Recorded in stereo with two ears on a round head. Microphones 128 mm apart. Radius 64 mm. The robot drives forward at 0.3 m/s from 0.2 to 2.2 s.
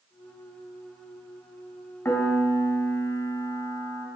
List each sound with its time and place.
2.0 s a piano: 15° left (ahead or behind), 1.9 m